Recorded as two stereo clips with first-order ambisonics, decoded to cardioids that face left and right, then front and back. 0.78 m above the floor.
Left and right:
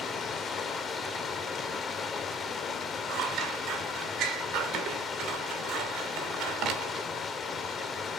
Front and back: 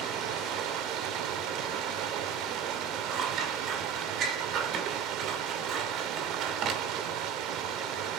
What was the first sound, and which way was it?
Running water, 155° left.